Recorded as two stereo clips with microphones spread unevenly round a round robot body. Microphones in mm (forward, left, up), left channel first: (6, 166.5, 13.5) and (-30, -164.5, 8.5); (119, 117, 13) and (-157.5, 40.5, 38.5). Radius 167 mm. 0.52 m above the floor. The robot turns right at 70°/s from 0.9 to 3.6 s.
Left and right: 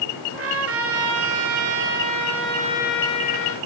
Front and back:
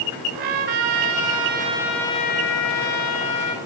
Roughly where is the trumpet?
Behind right.